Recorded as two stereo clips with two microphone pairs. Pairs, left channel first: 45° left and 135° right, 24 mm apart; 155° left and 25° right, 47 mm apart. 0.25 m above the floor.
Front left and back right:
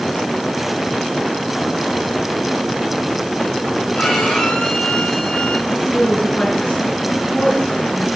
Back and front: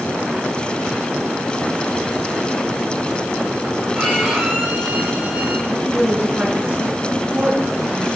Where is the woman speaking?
35° left, 3 m.